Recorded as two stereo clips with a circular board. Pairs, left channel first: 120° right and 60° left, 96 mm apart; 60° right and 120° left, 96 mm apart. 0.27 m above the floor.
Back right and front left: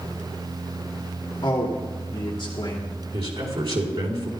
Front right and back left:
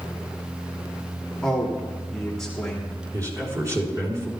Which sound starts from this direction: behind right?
A man speaking, at 1.4 s.